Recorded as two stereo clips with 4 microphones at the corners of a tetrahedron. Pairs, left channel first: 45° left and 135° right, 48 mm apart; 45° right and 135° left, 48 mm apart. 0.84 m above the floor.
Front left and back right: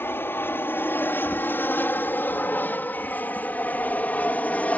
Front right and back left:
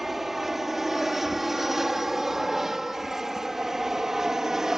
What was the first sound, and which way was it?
An aircraft, 50° left.